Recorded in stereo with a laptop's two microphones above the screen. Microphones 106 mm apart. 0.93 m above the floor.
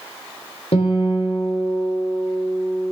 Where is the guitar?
65° left (ahead or behind), 3 m.